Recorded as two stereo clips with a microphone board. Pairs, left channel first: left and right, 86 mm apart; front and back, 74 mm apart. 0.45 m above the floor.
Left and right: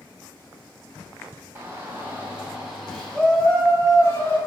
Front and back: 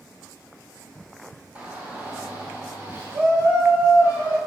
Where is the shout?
125° right, 1.6 m; by 4.4 s 140° left, 1.9 m.